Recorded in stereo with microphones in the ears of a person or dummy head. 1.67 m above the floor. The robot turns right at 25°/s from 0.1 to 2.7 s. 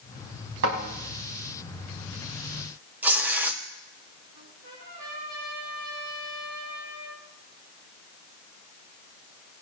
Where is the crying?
No crying in this recording.